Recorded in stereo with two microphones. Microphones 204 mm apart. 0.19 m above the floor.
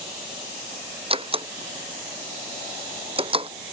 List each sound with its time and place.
1.1 s a door slam: 25° right (ahead or behind)